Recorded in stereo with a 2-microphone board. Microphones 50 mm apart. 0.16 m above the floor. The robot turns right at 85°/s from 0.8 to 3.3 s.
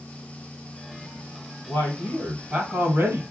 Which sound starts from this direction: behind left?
A man speaking, at 1.7 s.